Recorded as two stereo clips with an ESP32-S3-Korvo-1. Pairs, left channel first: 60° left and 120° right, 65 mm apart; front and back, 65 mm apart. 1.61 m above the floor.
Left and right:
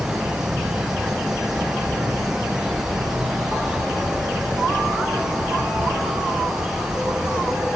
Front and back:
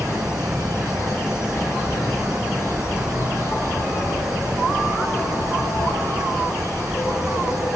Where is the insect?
40° right, 2.5 m.